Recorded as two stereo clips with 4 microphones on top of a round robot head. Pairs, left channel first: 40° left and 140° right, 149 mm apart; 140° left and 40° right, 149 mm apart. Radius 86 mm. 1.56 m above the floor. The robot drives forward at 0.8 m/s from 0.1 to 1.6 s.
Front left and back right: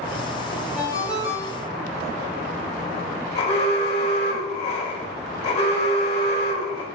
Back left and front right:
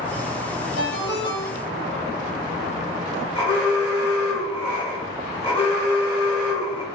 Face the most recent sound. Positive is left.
turn(degrees=90)